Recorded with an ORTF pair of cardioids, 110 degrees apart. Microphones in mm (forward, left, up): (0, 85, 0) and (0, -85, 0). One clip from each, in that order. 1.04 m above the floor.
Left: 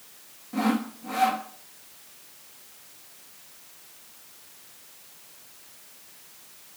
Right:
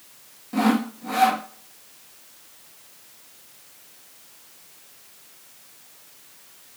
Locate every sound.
0.5 s sawing: 25° right, 0.9 m